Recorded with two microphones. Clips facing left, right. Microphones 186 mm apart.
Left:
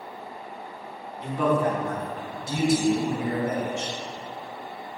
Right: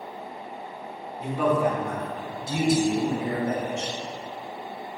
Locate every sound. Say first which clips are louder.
1.2 s a man speaking: even; 5° right (ahead or behind), 2.0 m; by 3.9 s 35° right (ahead or behind), 3 m